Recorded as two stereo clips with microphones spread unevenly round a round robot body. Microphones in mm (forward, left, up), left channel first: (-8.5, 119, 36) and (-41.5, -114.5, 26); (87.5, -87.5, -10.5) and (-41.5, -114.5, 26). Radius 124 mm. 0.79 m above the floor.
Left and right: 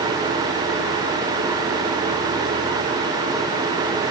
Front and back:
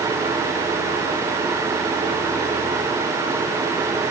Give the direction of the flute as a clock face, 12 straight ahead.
I don't hear a flute.